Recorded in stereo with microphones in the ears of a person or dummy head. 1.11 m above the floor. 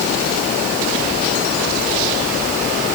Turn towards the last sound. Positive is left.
No sound to turn to.